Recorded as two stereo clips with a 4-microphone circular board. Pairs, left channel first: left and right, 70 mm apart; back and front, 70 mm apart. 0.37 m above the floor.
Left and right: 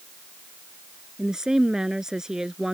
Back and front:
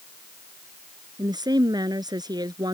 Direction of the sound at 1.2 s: 10° right.